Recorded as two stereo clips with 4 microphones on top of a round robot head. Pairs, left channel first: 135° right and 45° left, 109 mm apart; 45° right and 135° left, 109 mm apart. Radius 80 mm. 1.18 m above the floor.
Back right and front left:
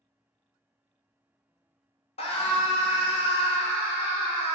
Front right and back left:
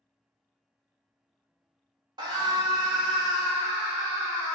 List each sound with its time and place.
2.2 s a scream: 170° right, 1.5 m; by 4.6 s 175° right, 3.5 m